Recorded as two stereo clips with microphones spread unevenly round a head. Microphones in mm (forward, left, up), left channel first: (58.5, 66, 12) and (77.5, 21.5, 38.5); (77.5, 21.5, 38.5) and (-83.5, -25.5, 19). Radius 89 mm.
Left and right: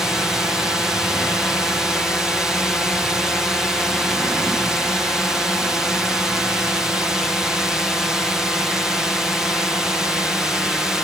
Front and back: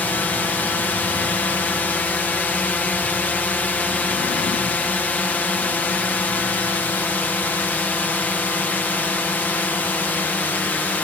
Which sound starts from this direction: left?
A drone, at 0.0 s.